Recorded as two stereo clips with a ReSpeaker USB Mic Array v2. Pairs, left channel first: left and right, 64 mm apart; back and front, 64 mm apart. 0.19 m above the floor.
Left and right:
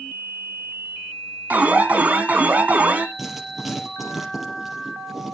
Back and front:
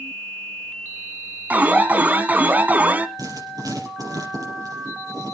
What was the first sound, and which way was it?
An alarm, 45° right.